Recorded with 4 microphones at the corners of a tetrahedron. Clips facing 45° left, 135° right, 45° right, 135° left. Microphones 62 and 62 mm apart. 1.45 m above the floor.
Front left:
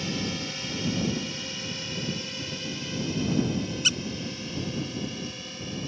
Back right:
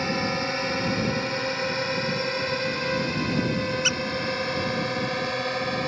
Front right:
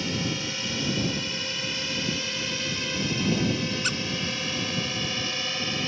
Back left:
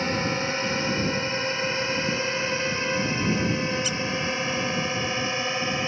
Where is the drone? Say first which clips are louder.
Back right 6 dB, back left 4 dB; 175° right; by 5.9 s 160° right.